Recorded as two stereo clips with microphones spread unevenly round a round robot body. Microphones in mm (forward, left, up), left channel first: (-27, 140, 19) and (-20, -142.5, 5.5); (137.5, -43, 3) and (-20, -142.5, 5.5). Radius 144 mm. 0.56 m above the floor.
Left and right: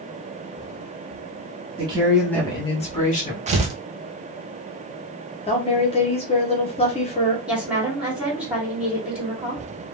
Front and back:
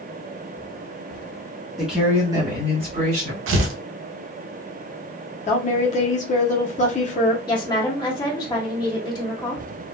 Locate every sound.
1.8 s a woman speaking: 55° right, 0.9 m; by 3.4 s 150° left, 1.7 m
3.5 s tearing paper: 155° right, 0.6 m
5.5 s a woman speaking: 30° left, 0.8 m
7.5 s a woman speaking: 10° right, 1.4 m